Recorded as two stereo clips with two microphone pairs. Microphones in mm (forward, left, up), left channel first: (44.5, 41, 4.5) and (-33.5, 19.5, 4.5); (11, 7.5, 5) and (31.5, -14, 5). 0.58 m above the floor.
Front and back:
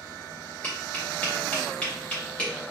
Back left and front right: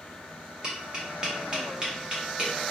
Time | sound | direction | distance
0.6 | tapping | 40° right | 0.9 m